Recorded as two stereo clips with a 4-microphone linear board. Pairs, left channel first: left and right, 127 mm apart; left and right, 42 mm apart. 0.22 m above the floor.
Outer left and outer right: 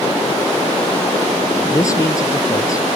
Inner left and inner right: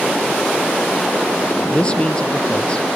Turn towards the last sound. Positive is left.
turn(degrees=25)  # may be behind; listen again after turning